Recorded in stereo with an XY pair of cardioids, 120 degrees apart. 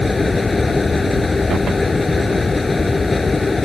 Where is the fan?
20° left.